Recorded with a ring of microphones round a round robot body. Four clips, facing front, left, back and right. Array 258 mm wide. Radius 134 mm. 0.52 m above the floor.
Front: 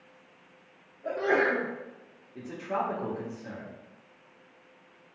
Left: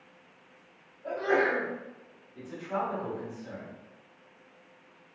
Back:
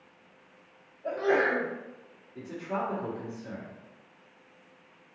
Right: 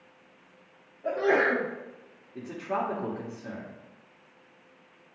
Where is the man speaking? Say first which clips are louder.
Right 2 dB, front 1 dB; 75° right, 2.0 m.